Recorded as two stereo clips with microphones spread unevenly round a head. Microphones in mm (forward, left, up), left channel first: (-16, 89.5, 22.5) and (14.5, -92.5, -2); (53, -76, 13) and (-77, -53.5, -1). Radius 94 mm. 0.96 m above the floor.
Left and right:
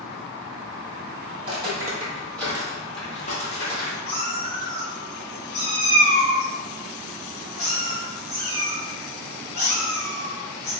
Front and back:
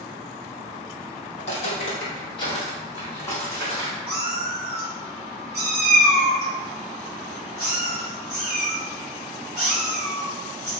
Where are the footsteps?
20° right, 1.7 m; by 4.0 s 75° left, 2 m.